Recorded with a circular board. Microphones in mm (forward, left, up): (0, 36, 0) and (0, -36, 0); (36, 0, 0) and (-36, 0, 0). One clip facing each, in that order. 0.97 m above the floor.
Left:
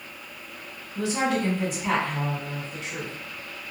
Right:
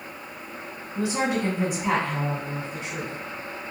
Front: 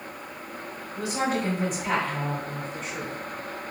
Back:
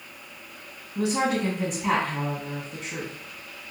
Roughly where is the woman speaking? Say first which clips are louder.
Even, back 3 dB; behind.